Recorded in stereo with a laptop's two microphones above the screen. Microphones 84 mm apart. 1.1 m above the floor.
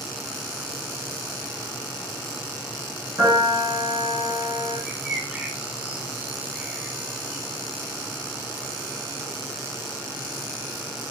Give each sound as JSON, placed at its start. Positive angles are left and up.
{"t": 3.2, "sound": "a piano", "side_deg": -40, "distance_m": 4.5}
{"t": 4.9, "sound": "a bird", "side_deg": -15, "distance_m": 1.1}